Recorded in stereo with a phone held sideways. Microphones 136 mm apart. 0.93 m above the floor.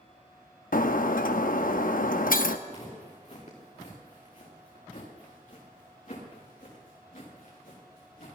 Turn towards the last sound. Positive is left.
turn(degrees=70)  # may be behind; listen again after turning